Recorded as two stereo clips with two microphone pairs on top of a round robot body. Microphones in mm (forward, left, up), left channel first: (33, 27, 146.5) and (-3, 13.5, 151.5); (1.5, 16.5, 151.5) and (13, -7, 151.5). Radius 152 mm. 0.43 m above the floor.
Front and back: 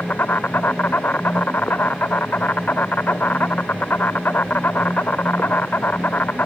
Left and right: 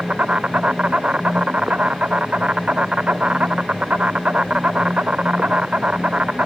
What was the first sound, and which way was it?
An insect, 20° right.